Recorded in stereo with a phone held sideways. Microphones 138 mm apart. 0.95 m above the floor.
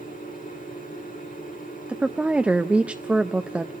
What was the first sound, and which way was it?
A machine running, 80° left.